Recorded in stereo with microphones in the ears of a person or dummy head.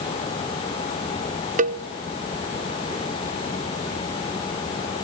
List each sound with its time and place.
1.6 s a cowbell: 45° right (ahead or behind), 0.8 m